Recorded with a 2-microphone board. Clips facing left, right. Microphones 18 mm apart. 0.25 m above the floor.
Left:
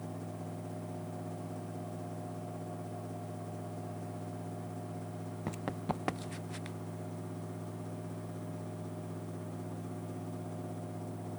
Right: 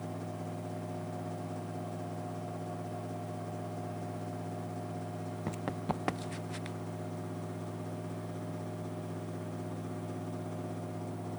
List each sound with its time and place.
5.5 s running footsteps: centre (ahead or behind); by 6.8 s 10° right (ahead or behind)